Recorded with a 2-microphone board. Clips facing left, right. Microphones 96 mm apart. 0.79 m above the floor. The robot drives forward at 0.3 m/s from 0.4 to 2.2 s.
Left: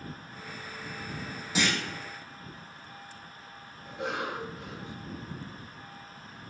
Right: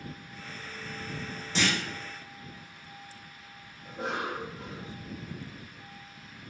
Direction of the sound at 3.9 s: 35° right (ahead or behind).